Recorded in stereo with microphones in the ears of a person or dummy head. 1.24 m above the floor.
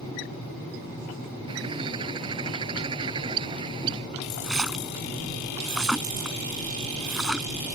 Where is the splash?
5° right (ahead or behind).